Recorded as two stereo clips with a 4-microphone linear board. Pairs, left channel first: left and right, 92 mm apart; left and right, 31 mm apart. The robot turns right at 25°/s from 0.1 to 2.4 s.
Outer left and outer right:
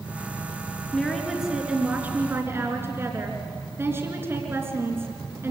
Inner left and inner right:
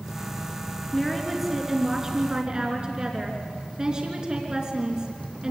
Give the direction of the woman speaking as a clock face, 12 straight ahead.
6 o'clock.